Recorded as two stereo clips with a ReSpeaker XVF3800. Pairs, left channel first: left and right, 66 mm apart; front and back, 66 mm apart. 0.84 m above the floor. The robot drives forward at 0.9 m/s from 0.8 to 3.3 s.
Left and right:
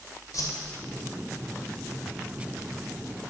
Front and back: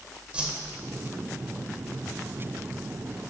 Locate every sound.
0.3 s a whoosh: 110° left, 0.9 m